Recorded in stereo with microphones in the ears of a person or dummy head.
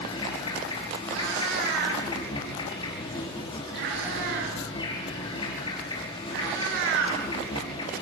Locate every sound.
0.0 s an insect: 30° left (ahead or behind), 5 m
1.1 s a cat meowing: 60° right (ahead or behind), 7 m